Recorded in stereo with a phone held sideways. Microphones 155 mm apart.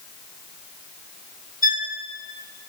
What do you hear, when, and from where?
1.6 s a violin: 60° left (ahead or behind), 1.5 m